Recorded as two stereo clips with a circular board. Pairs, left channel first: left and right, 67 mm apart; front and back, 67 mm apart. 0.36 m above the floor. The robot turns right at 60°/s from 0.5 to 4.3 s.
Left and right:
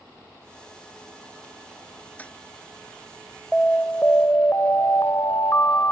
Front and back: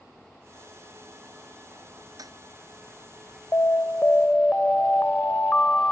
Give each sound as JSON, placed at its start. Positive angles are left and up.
{"t": 2.2, "sound": "a toilet flushing", "azimuth_deg": 160}
{"t": 3.5, "sound": "an alarm", "azimuth_deg": 20}